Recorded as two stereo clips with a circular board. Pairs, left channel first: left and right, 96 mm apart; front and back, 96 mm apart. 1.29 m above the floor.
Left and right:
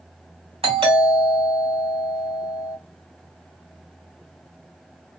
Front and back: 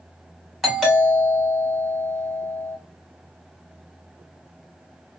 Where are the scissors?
I don't hear scissors.